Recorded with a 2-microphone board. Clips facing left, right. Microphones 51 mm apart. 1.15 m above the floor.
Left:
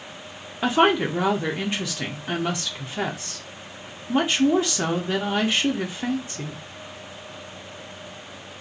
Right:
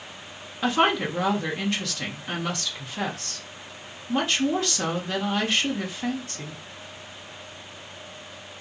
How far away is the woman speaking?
About 0.8 m.